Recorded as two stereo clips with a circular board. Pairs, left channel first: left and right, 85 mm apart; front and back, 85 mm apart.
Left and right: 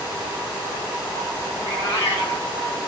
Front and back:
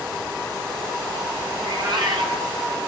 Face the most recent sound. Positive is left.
turn(degrees=150)